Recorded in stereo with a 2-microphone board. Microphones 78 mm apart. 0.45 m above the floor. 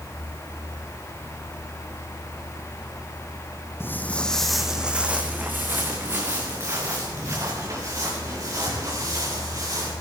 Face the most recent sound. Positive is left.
turn(degrees=-45)  # may be behind; listen again after turning